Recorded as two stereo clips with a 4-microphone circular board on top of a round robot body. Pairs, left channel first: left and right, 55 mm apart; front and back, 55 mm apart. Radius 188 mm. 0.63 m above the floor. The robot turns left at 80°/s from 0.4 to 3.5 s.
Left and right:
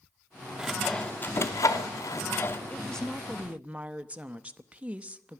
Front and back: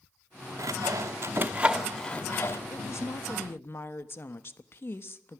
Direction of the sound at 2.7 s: 35° left.